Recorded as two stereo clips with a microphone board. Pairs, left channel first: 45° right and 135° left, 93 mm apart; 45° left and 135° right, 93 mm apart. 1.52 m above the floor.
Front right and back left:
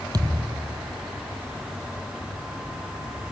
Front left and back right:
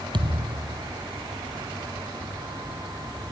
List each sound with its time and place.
0.1 s a thud: 175° right